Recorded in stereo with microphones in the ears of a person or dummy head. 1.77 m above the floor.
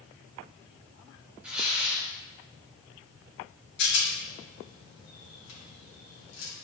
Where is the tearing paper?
5° right (ahead or behind), 3.5 m.